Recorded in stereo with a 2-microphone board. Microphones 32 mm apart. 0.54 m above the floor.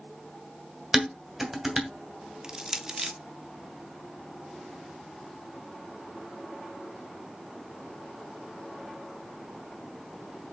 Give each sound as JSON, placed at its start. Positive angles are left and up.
{"t": 0.9, "sound": "dishes clattering", "side_deg": -10, "distance_m": 2.5}
{"t": 2.4, "sound": "crushing", "side_deg": -20, "distance_m": 0.9}